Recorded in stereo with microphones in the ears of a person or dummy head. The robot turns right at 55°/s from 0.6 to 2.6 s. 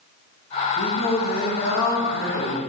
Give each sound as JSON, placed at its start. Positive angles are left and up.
{"t": 0.8, "sound": "singing", "azimuth_deg": 35, "distance_m": 0.9}